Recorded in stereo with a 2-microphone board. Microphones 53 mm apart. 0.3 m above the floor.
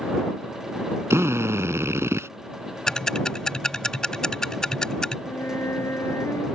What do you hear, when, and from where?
1.1 s a drill: 60° right (ahead or behind)
2.9 s ticking: 10° left (ahead or behind)
5.3 s a flute: 65° left (ahead or behind)